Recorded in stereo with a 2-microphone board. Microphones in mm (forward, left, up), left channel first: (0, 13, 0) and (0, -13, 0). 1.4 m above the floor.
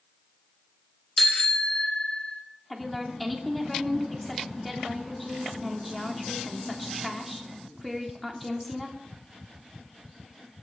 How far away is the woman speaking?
About 3.5 m.